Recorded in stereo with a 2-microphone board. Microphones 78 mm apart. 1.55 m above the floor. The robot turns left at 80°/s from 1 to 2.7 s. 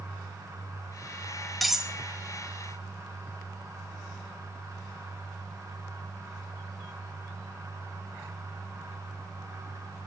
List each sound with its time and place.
1.6 s cutlery clinking: centre (ahead or behind), 0.9 m; by 1.9 s 10° right (ahead or behind), 0.9 m